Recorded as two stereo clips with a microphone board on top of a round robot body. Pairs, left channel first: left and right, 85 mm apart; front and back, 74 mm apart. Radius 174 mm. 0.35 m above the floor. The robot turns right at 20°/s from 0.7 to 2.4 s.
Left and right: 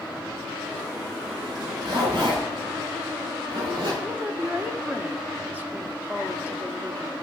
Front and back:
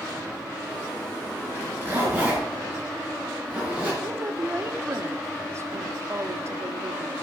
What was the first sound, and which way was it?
A zipper, 120° right.